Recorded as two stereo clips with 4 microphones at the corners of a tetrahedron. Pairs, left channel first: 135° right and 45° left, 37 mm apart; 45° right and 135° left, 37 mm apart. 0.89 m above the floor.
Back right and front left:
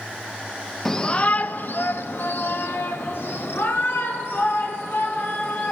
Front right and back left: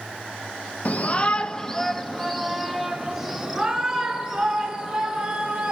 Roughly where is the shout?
Ahead right.